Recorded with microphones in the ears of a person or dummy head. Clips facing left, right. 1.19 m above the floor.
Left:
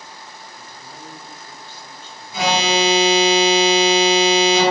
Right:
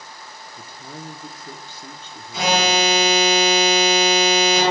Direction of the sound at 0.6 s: 55° right (ahead or behind).